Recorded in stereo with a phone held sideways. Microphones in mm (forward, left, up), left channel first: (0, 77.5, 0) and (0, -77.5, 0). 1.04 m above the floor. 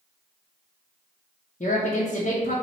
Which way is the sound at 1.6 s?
55° left (ahead or behind).